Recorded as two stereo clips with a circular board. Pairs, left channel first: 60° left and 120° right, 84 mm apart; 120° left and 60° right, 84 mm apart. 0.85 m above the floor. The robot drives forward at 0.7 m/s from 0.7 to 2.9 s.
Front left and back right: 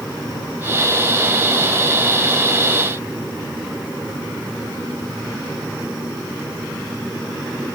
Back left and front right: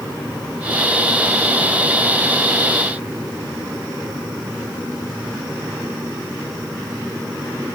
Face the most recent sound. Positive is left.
No sound to turn to.